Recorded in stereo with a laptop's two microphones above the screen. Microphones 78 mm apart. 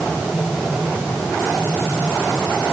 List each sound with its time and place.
Only background noise.